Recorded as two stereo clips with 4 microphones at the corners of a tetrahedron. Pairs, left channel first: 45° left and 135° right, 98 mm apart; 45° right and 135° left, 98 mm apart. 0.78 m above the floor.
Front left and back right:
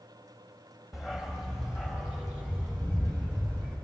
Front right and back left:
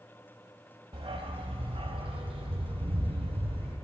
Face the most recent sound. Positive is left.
turn(degrees=150)